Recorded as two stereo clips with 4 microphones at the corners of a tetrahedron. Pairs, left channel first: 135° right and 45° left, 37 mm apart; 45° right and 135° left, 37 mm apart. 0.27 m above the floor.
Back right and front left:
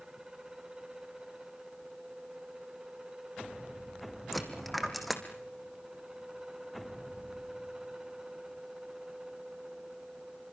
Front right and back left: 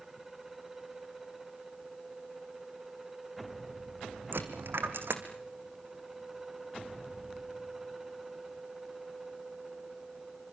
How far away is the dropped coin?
About 2 m.